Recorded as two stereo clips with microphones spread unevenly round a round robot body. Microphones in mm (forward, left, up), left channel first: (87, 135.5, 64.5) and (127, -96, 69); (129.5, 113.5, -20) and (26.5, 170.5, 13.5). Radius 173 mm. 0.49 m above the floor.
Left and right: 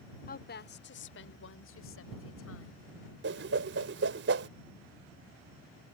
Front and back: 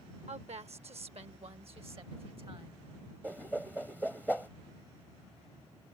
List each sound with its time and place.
0.3 s a woman speaking: 135° left; by 2.8 s 105° left
3.2 s a whoosh: 120° right